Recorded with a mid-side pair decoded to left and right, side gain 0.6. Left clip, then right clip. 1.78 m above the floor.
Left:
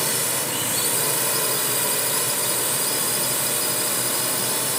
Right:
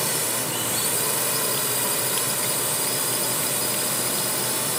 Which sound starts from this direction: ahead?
A drone, at 0.0 s.